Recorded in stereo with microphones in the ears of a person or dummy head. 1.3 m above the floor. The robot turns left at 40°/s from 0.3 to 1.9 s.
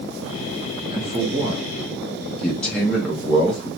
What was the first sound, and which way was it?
A man speaking, 30° right (ahead or behind).